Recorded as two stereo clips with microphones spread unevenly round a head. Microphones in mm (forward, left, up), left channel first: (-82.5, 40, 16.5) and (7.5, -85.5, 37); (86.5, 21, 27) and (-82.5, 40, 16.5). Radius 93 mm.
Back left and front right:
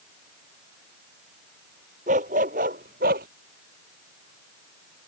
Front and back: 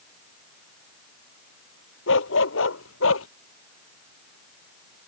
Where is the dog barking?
Straight ahead; by 3.3 s 10° right.